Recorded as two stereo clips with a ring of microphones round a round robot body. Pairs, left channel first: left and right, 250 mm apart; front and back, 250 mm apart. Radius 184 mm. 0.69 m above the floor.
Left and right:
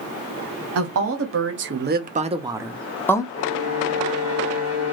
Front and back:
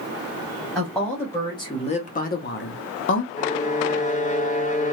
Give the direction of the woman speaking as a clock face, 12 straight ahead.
3 o'clock.